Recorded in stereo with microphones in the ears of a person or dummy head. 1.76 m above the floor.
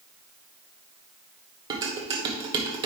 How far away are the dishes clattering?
About 1.2 m.